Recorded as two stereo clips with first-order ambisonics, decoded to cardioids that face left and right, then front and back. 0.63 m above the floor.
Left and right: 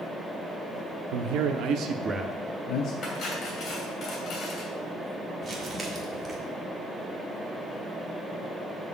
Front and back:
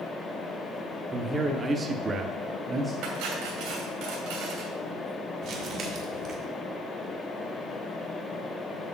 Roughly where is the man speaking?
Right.